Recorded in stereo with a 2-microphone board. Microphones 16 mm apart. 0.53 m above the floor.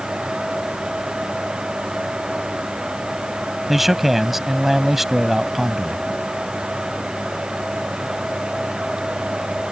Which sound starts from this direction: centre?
A man speaking, at 3.7 s.